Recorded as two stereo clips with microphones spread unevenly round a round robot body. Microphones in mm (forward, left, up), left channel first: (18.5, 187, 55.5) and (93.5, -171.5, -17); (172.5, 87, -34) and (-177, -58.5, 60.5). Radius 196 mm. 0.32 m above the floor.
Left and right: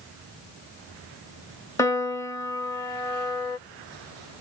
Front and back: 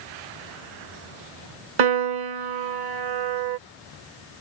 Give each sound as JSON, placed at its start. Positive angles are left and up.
{"t": 1.8, "sound": "a piano", "azimuth_deg": -165}